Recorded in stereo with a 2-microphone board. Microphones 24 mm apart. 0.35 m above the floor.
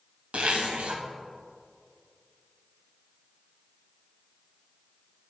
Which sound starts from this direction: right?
A zipper, at 0.3 s.